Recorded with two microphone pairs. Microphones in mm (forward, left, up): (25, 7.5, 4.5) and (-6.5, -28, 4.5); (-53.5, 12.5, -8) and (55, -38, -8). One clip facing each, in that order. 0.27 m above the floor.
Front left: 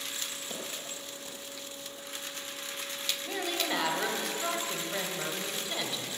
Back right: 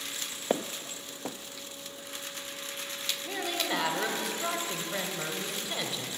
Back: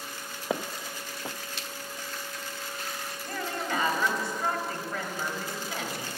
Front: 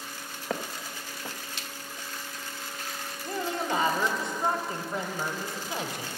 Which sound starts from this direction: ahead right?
A woman speaking, at 3.2 s.